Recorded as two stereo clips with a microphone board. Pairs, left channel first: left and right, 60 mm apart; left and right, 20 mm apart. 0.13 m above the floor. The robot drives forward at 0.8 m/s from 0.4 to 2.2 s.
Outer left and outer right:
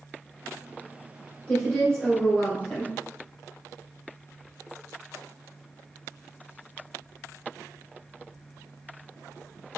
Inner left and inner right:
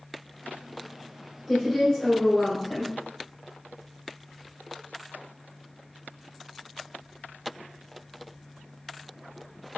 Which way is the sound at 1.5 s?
20° left (ahead or behind).